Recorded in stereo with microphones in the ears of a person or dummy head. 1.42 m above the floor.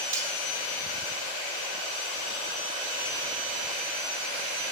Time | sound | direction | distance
0.1 | cutlery clinking | 15° right (ahead or behind) | 1.3 m